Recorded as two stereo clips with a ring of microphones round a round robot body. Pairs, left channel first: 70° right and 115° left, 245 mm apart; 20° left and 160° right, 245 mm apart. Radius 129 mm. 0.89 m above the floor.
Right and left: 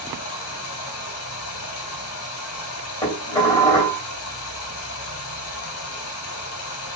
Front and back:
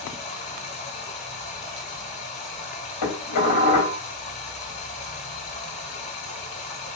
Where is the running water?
40° right, 2 m.